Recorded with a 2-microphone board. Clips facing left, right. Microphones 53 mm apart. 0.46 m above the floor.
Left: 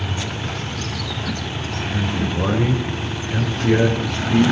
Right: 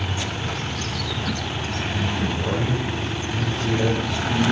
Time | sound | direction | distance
1.9 | a man speaking | 80° left | 6 m